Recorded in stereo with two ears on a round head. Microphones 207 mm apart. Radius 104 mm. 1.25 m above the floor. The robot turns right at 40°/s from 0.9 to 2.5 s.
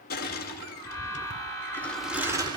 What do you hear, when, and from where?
0.1 s crushing: 45° left (ahead or behind), 5.5 m; by 2.6 s 20° right (ahead or behind), 5.5 m